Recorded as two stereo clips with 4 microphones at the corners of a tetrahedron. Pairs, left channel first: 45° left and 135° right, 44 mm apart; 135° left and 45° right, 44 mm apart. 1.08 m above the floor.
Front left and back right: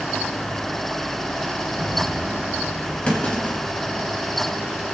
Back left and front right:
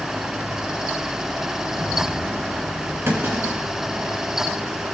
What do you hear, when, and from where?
1.7 s a rattle: 55° right, 3.5 m
3.1 s a clunk: 15° right, 3.5 m